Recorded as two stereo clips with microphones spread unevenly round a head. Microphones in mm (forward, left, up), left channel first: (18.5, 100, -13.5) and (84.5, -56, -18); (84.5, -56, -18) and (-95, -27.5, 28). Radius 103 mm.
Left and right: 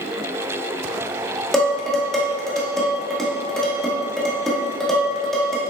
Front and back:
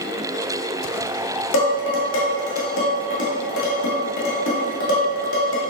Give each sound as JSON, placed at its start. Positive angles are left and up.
{"t": 1.5, "sound": "dishes clattering", "azimuth_deg": 25, "distance_m": 1.4}